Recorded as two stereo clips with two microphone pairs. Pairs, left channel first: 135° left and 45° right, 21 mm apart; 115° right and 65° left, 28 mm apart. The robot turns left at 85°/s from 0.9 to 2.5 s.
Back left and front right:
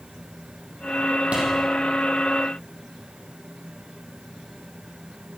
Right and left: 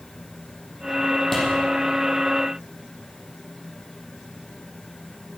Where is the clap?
30° right, 6 m; by 1.4 s 40° right, 6 m.